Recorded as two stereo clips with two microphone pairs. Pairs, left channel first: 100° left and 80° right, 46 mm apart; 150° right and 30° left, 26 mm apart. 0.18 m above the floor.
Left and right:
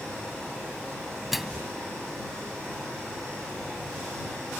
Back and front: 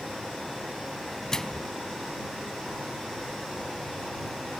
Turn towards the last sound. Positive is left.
turn(degrees=-155)